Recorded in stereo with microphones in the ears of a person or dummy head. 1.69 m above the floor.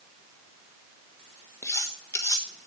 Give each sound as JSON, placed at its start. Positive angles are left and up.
{"t": 1.6, "sound": "cutlery clinking", "side_deg": 20, "distance_m": 1.1}